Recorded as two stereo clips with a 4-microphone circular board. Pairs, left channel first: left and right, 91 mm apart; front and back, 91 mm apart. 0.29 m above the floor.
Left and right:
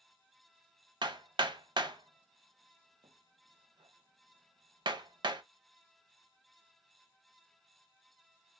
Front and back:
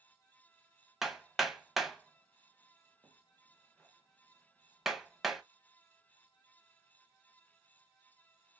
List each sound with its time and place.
1.0 s hammering: 90° right, 0.6 m